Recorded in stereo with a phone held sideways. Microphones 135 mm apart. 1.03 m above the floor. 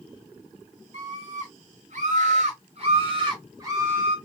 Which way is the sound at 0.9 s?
70° right (ahead or behind).